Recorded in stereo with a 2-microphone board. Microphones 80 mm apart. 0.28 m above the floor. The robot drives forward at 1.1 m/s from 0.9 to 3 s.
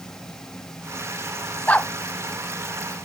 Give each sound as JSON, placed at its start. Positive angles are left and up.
{"t": 1.7, "sound": "a dog barking", "side_deg": 15}